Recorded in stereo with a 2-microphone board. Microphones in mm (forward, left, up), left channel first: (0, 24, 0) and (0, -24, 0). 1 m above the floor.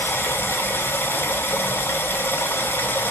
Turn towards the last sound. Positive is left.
turn(degrees=55)  # may be behind; listen again after turning